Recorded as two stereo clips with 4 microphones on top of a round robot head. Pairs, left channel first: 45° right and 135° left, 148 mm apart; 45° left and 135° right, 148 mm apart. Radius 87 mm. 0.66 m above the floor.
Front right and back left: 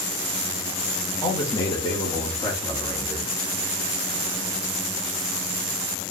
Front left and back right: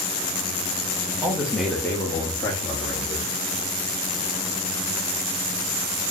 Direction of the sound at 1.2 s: 80° right.